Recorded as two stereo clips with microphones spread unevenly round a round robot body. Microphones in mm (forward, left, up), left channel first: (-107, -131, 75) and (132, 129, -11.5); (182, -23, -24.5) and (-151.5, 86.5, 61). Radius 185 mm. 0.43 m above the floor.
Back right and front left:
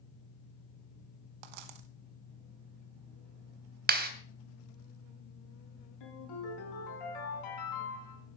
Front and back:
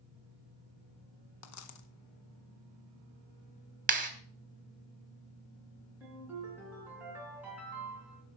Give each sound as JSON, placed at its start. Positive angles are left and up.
{"t": 1.4, "sound": "a dropped coin", "azimuth_deg": 30, "distance_m": 1.0}
{"t": 3.9, "sound": "a clap", "azimuth_deg": 90, "distance_m": 1.5}
{"t": 6.0, "sound": "a ringtone", "azimuth_deg": -110, "distance_m": 4.0}